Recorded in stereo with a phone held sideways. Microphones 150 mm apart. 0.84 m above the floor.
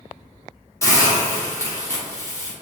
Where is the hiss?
20° left (ahead or behind), 0.8 m.